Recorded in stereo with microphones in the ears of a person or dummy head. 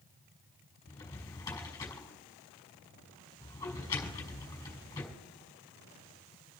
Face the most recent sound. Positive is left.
turn(degrees=20)  # may be behind; listen again after turning